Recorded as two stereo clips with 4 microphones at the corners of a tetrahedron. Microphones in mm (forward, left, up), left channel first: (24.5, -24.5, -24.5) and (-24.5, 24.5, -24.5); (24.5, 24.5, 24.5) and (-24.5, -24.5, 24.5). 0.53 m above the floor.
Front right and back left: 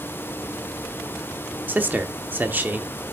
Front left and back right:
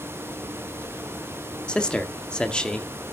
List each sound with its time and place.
1.7 s a man speaking: 110° left, 0.9 m